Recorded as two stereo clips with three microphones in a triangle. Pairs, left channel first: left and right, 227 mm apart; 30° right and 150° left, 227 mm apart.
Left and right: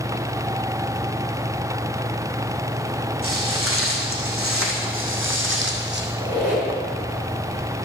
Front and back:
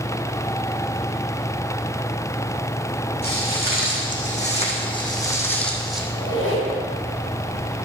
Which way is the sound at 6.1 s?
10° right.